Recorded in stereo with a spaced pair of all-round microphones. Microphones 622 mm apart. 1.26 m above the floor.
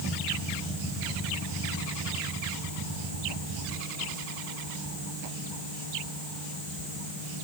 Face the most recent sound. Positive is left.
No sound to turn to.